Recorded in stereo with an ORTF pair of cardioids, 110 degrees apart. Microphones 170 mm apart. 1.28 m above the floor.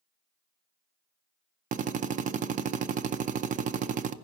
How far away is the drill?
About 0.5 m.